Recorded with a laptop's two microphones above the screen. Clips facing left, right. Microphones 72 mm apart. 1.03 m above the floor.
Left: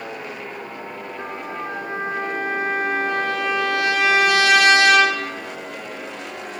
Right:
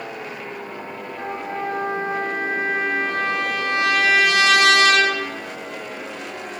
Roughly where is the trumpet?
Right.